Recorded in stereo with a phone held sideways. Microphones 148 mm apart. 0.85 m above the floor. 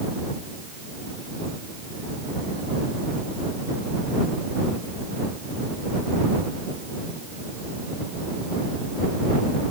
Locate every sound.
Only background noise.